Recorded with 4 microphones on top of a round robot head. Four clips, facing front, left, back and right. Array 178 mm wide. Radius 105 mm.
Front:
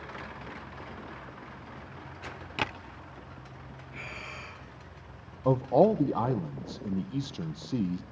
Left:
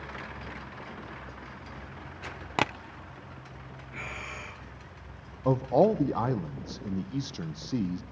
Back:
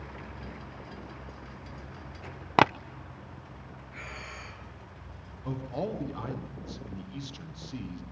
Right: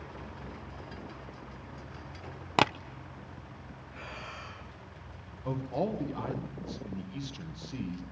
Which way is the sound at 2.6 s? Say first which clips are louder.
Right 3 dB, back 12 dB; 170° right.